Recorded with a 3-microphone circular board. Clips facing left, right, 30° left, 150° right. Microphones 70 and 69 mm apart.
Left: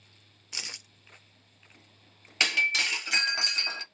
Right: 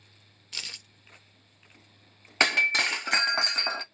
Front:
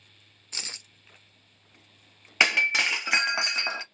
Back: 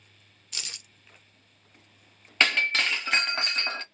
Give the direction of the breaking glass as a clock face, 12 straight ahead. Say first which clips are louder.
Right 3 dB, front 1 dB; 2 o'clock.